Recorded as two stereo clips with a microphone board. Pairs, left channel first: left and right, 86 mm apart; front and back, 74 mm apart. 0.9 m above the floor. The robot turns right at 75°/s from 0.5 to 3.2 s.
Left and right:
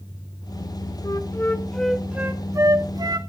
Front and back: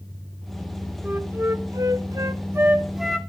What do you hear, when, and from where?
1.0 s a flute: 115° left, 1.3 m; by 3.2 s 80° right, 1.3 m